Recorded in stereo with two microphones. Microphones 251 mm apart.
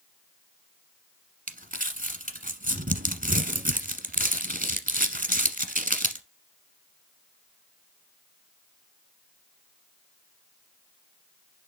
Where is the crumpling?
35° right (ahead or behind), 0.9 m.